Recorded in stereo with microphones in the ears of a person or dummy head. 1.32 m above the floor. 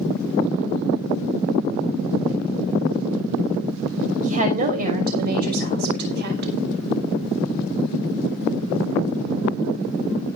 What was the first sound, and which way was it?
A woman speaking, 40° right (ahead or behind).